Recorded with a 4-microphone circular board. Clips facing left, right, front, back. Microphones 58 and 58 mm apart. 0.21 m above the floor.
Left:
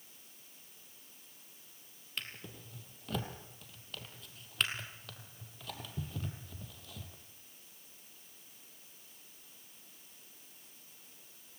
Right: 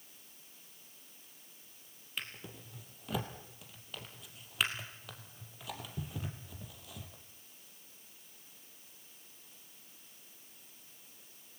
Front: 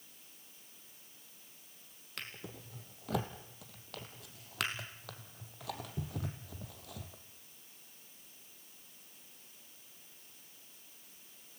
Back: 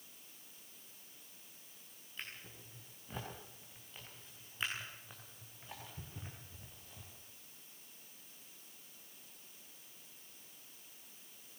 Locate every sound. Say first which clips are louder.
2.2 s a drawer: right 1 dB, front 3 dB; 5° right, 3 m